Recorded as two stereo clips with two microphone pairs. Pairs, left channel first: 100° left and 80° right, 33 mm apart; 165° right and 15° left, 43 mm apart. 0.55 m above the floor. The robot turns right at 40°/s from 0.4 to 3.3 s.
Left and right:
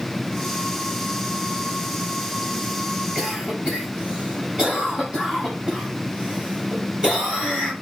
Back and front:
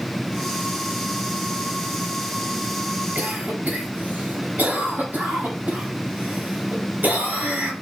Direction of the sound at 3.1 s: 25° right.